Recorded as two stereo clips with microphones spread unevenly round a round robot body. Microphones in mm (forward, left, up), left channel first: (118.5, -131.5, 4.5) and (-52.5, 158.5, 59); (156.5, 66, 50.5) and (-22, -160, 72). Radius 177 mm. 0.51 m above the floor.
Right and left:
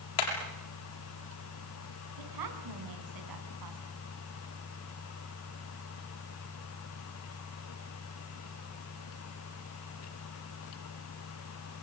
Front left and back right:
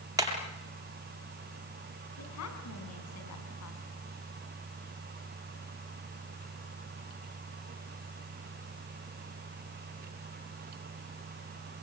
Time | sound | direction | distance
0.2 | hammering | 50° right | 7 m
2.2 | a woman speaking | 95° left | 5.5 m